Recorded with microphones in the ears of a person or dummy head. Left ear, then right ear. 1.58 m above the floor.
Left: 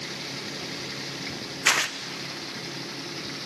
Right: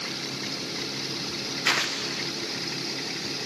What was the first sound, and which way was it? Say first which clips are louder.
Tearing paper: left 2 dB; 25° left (ahead or behind).